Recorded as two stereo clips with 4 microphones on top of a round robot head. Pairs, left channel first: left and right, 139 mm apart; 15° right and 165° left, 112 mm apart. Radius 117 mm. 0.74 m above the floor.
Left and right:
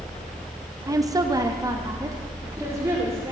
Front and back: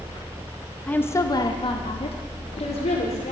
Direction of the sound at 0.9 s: 75° right.